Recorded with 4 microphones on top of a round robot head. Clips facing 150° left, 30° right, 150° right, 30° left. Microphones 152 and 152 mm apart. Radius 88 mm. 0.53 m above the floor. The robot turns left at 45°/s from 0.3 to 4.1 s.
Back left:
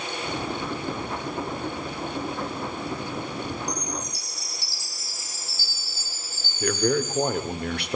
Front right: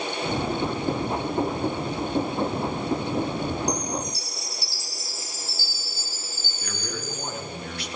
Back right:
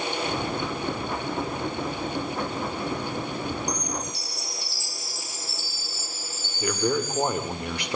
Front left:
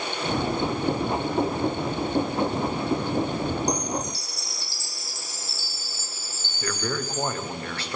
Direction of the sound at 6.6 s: 140° left.